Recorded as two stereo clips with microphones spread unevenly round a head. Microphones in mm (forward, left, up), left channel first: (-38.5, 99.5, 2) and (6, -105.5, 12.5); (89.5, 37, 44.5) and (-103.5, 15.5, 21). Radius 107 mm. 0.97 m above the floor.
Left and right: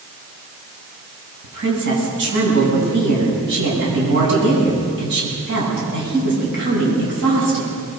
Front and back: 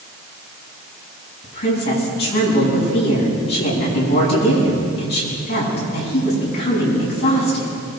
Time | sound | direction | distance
1.4 | a woman speaking | 40° right | 9.5 m